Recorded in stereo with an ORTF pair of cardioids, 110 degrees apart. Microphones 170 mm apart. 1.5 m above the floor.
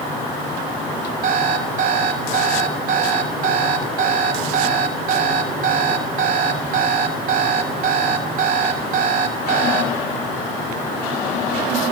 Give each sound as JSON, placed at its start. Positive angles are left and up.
{"t": 1.2, "sound": "an alarm clock", "azimuth_deg": -60, "distance_m": 3.0}